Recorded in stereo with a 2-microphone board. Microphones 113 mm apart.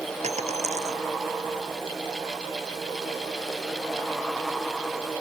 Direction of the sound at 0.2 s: 80° right.